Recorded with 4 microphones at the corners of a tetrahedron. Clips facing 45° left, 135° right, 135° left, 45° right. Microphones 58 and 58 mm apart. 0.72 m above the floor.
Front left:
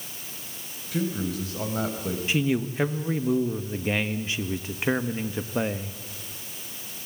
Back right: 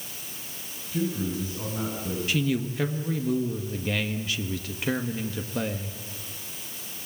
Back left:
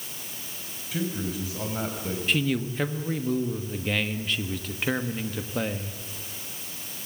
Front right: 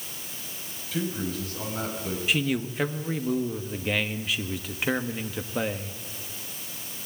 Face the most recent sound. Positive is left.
turn(degrees=30)